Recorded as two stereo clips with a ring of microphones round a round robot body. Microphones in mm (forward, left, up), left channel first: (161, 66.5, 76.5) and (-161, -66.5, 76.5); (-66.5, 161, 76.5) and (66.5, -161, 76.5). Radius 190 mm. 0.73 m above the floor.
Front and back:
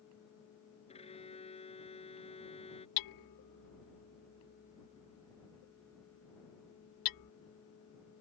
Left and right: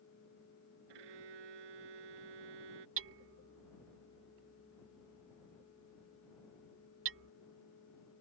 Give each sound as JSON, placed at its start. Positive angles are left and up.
{"t": 0.9, "sound": "a violin", "azimuth_deg": -50}
{"t": 3.0, "sound": "hammering", "azimuth_deg": -10}